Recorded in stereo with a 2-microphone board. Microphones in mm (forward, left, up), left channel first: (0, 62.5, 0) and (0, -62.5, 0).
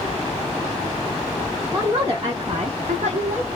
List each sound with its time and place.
1.7 s a woman speaking: 15° right (ahead or behind), 1.0 m; by 3.5 s 60° right (ahead or behind), 0.9 m